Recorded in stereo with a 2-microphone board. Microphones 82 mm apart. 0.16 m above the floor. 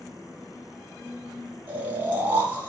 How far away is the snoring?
About 1.1 m.